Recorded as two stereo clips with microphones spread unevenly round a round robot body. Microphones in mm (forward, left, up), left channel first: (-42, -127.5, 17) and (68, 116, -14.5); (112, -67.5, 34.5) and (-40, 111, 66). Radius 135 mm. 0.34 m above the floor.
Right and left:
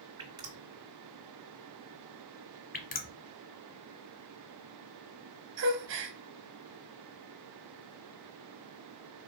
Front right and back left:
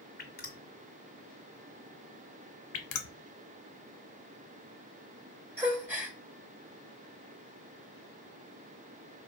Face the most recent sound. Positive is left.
turn(degrees=45)